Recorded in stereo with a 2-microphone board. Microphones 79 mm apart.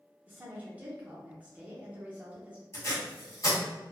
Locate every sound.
0.3 s a woman speaking: 15° right (ahead or behind), 0.8 m
2.7 s tape being pulled: 40° left (ahead or behind), 1.3 m